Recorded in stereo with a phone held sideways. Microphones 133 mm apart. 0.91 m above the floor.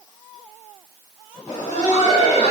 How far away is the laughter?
About 1.1 m.